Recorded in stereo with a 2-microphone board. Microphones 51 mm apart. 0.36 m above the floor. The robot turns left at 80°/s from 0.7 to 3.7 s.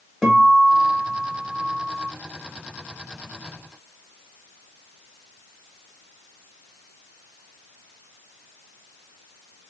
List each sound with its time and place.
0.2 s a guitar: straight ahead, 0.9 m; by 2.1 s 115° right, 0.9 m